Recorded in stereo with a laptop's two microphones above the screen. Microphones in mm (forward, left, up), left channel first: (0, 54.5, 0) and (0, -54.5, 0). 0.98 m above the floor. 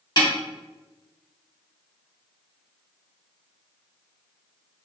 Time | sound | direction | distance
0.2 | a snare drum | 40° left (ahead or behind) | 1.1 m